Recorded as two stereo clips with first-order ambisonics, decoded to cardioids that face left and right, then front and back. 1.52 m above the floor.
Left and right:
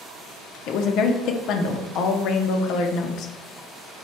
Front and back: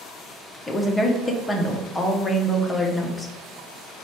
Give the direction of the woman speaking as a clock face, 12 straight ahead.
9 o'clock.